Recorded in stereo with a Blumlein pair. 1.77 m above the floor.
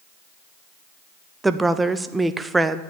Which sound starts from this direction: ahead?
A woman speaking, at 1.4 s.